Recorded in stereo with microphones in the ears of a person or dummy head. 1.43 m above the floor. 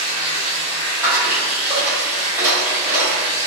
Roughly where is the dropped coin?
Centre.